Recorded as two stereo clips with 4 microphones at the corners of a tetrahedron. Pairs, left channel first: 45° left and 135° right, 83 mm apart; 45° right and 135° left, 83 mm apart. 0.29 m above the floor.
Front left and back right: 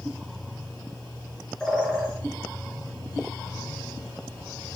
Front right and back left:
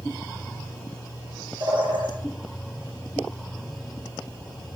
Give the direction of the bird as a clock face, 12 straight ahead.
8 o'clock.